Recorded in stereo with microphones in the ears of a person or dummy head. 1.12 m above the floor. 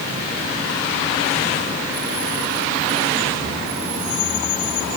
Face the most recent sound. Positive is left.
No sound to turn to.